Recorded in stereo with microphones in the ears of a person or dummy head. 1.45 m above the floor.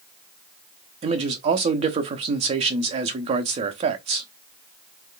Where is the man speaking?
30° right (ahead or behind), 0.7 m.